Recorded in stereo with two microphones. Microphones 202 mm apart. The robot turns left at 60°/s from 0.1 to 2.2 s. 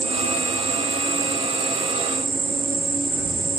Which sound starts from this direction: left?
An insect, at 0.0 s.